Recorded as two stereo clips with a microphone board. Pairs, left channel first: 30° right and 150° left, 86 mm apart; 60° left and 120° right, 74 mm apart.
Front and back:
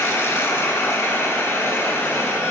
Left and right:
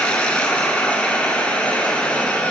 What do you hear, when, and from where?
0.0 s running water: straight ahead, 1.7 m